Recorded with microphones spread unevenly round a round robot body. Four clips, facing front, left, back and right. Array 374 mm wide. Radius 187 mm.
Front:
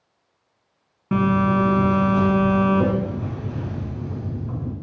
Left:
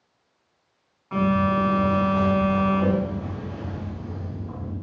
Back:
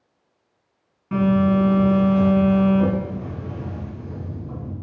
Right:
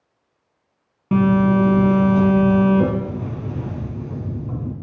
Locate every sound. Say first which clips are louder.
1.1 s a phone buzzing: right 5 dB, back 1 dB; 65° right, 1.8 m